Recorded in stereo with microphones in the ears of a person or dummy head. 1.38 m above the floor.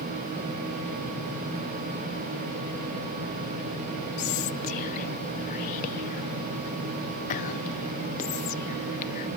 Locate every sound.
4.2 s whispering: 40° left (ahead or behind), 0.9 m